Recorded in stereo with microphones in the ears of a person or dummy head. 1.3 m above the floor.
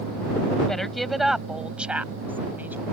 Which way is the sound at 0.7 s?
5° right (ahead or behind).